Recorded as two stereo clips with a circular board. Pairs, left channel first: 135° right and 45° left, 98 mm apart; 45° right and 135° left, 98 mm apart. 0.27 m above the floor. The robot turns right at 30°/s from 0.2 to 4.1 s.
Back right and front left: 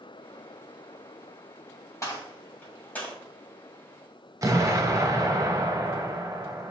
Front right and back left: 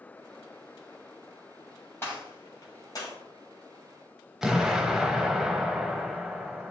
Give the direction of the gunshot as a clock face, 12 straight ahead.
3 o'clock.